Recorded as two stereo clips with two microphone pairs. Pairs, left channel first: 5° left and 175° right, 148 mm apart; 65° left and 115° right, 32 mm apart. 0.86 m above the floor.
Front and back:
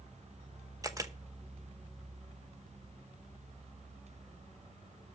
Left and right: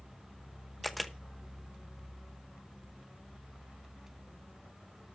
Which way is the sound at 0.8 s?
145° left.